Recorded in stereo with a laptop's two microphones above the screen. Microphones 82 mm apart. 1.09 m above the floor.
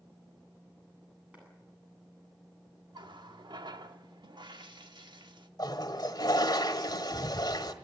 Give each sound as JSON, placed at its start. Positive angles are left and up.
{"t": 1.3, "sound": "a clap", "side_deg": -15, "distance_m": 9.0}
{"t": 2.9, "sound": "a running tap", "side_deg": -70, "distance_m": 1.5}
{"t": 5.6, "sound": "a toilet flushing", "side_deg": 55, "distance_m": 1.5}